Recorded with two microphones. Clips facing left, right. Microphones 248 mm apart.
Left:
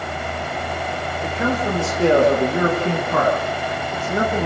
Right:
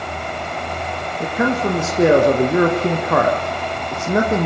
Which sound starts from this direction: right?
A man speaking, at 1.2 s.